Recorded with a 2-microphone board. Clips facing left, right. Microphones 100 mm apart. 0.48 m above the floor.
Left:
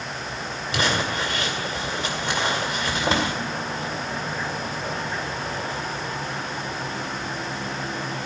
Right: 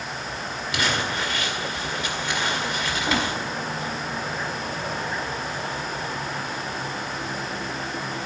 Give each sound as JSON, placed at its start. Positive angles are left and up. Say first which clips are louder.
{"t": 0.7, "sound": "crumpling", "louder": "left 2 dB", "side_deg": 30, "distance_m": 2.0}